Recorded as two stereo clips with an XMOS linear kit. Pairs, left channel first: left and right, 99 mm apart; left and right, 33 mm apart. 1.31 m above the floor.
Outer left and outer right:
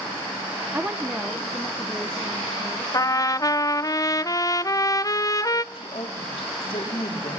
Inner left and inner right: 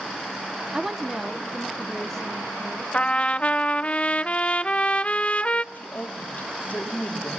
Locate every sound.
0.7 s a woman speaking: 20° right (ahead or behind), 0.8 m; by 2.8 s 15° left (ahead or behind), 2.5 m
2.9 s a trumpet: 35° left (ahead or behind), 0.5 m
5.7 s a woman speaking: 65° left (ahead or behind), 3.5 m